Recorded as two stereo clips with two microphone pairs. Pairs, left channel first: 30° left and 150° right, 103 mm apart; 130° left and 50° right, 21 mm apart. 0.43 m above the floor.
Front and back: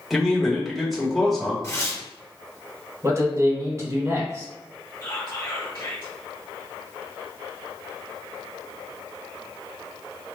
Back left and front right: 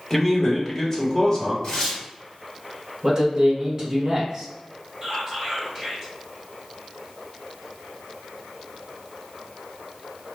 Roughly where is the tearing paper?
Left.